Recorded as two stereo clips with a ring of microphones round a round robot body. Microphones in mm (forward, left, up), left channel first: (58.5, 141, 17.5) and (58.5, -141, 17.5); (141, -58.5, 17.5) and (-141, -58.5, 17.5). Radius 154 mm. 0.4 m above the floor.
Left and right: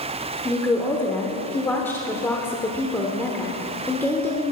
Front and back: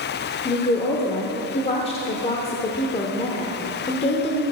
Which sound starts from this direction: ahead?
A woman speaking, at 0.5 s.